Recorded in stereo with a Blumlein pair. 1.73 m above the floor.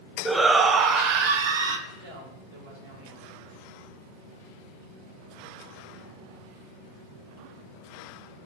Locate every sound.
0.2 s a shout: straight ahead, 0.8 m; by 1.8 s 60° right, 1.3 m
1.9 s a woman speaking: 60° right, 4.5 m